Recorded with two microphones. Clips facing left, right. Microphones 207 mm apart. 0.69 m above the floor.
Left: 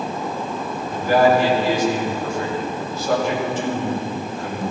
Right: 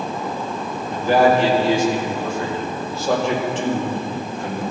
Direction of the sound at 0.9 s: 30° right (ahead or behind).